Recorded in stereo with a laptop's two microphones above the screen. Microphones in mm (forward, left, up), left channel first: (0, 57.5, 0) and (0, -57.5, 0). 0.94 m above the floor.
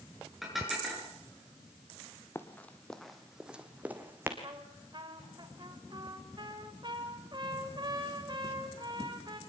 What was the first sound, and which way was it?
Dishes clattering, centre (ahead or behind).